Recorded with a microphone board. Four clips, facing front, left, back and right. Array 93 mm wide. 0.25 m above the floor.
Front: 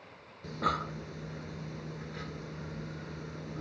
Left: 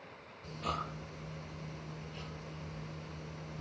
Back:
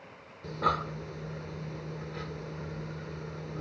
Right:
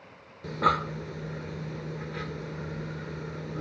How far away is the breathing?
About 0.9 m.